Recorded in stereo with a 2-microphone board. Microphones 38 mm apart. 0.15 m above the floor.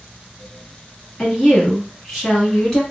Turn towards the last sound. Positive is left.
turn(degrees=10)  # may be behind; listen again after turning